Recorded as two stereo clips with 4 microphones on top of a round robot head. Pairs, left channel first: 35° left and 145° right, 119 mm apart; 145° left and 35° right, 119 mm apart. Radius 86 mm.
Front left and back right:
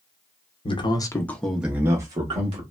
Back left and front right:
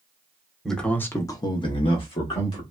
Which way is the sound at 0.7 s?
55° left.